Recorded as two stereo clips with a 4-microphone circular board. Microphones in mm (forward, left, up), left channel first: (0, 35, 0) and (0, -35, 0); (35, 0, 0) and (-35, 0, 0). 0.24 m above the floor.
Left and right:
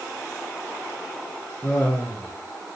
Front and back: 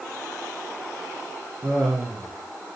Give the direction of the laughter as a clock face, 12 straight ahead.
7 o'clock.